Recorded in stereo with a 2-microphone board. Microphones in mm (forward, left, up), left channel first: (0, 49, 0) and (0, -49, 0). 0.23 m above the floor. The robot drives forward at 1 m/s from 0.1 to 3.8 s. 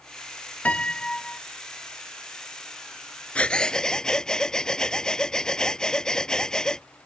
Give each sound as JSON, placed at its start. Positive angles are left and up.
{"t": 0.7, "sound": "a piano", "side_deg": 15}
{"t": 3.4, "sound": "breathing", "side_deg": 15}